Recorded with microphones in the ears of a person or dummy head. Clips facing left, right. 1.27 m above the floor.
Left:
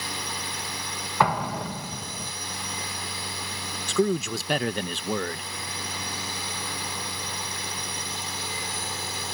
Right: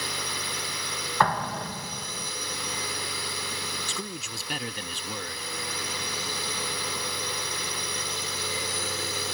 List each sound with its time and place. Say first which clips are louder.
0.0 s a drone: even; 60° right (ahead or behind)
1.2 s an explosion: left 2 dB; 10° left (ahead or behind)
3.9 s a man speaking: left 14 dB; 45° left (ahead or behind)